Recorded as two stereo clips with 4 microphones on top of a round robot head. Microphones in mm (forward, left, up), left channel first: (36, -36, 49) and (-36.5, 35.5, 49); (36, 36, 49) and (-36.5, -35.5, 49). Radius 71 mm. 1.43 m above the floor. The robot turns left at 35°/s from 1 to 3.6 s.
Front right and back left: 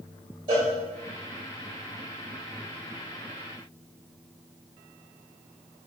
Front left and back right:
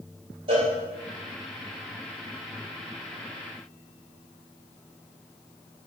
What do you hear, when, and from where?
0.5 s a cowbell: straight behind, 2.5 m